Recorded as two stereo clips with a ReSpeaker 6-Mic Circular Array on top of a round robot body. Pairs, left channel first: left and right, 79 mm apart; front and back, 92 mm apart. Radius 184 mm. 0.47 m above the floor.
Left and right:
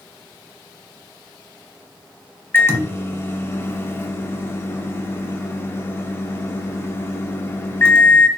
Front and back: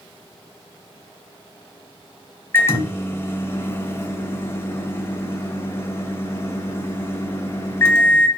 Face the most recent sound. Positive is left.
turn(degrees=50)